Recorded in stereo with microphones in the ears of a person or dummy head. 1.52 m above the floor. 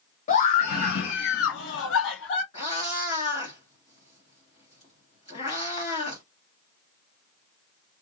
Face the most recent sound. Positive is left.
turn(degrees=40)  # may be behind; listen again after turning